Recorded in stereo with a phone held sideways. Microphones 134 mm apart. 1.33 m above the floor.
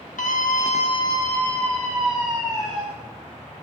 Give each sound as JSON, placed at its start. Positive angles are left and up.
{"t": 0.2, "sound": "a scream", "side_deg": 70, "distance_m": 1.0}